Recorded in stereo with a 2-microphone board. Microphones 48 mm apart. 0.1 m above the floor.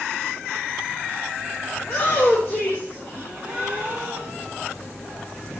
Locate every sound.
1.8 s a shout: 25° left (ahead or behind), 3.5 m; by 3.9 s 30° left (ahead or behind), 4.5 m
3.1 s a gasp: 20° right (ahead or behind), 3 m